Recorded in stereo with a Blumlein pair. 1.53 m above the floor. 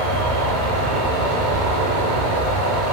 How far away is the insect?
About 0.9 m.